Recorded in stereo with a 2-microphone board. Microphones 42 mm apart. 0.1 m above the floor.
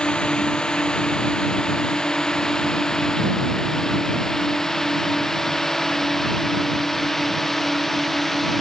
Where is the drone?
25° left (ahead or behind); by 8.6 s 10° left (ahead or behind).